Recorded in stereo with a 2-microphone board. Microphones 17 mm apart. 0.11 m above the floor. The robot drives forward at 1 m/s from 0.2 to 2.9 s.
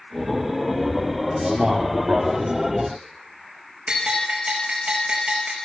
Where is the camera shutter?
No camera shutter in this recording.